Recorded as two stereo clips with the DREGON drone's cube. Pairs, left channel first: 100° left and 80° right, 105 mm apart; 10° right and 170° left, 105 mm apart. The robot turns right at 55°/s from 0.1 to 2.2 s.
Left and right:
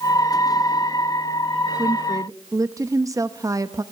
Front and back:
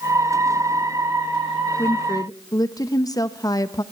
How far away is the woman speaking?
About 1.0 m.